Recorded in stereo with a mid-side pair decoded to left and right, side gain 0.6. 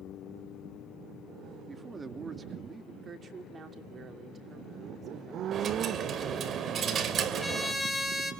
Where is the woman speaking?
35° right, 3 m.